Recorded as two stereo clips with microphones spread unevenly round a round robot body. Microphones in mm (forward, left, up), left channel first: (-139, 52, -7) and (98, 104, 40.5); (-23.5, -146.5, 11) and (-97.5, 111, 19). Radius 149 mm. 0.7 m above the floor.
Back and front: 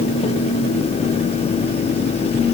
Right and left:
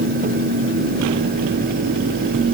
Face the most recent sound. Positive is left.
No sound to turn to.